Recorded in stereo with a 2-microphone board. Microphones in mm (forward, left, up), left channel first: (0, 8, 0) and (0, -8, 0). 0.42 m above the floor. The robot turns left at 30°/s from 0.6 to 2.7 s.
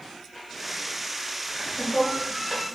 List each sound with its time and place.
1.5 s laughter: 35° right (ahead or behind), 1.1 m; by 2.6 s 30° right (ahead or behind), 1.1 m